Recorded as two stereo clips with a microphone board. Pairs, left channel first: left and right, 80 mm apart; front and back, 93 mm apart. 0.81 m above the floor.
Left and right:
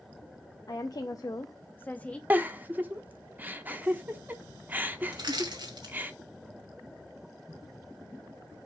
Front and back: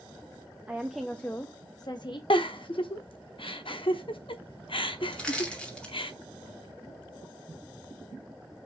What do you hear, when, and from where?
0.7 s a woman speaking: 105° left, 0.7 m; by 2.2 s 15° left, 0.8 m
2.3 s a giggle: 20° right, 0.7 m
5.1 s crushing: 80° right, 2 m